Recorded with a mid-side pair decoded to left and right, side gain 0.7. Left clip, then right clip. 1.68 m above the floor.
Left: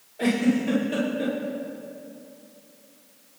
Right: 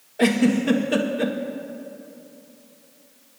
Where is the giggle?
35° right, 1.5 m.